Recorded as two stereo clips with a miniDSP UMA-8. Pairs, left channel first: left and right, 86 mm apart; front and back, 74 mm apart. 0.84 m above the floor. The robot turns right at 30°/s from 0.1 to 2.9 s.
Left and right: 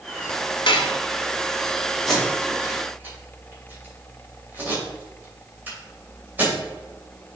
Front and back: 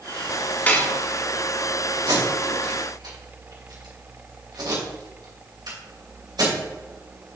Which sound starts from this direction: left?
Dishes clattering, at 0.7 s.